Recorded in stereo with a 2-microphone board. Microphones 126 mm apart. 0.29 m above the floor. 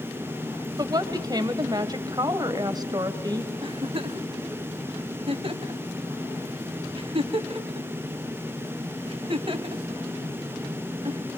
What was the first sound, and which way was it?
A woman speaking, 30° right (ahead or behind).